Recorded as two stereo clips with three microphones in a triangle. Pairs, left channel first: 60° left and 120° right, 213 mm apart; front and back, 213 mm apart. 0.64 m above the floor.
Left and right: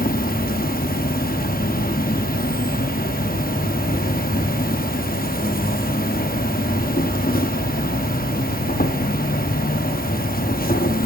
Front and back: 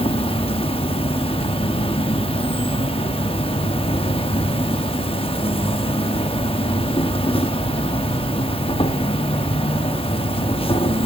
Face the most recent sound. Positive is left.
turn(degrees=50)